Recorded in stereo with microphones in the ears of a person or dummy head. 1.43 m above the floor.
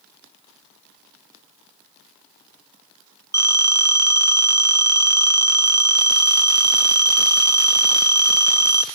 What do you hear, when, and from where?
3.3 s a phone ringing: 15° right (ahead or behind), 0.6 m